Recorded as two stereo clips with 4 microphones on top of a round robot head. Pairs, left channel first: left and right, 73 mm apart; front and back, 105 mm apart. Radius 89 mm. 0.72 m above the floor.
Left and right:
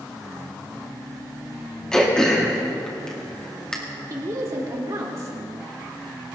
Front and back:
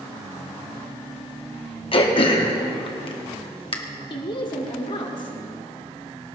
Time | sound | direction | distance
1.9 | throat clearing | 10° left | 2.0 m
4.1 | a woman speaking | 45° right | 2.5 m